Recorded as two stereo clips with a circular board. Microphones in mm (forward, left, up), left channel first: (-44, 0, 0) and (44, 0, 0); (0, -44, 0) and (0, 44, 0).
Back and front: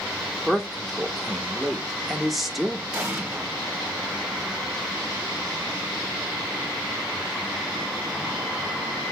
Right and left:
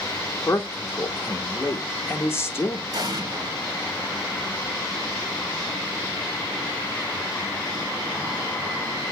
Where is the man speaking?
90° right, 0.7 m.